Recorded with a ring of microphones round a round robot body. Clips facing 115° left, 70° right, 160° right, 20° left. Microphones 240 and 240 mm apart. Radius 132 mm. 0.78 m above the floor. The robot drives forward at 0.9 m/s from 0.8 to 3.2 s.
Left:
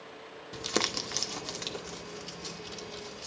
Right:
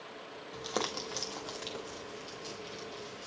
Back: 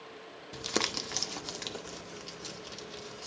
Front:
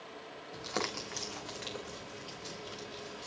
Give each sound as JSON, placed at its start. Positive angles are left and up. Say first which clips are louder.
{"t": 0.5, "sound": "crumpling", "louder": "left 4 dB, back 4 dB", "azimuth_deg": 165, "distance_m": 0.8}